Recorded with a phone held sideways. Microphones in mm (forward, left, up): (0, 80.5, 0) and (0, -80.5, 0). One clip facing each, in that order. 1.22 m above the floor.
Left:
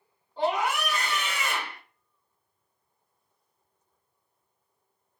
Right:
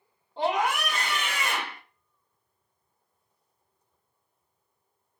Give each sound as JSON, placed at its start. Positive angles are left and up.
{"t": 0.4, "sound": "a scream", "side_deg": -25, "distance_m": 1.4}